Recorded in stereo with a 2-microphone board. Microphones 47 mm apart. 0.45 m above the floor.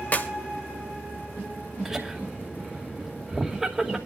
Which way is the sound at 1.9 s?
15° right (ahead or behind).